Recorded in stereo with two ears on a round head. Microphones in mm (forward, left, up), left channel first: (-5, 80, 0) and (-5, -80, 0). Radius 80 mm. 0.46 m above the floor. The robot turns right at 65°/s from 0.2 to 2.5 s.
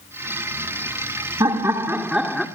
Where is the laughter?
20° right (ahead or behind), 1.4 m; by 2.5 s centre (ahead or behind), 1.4 m.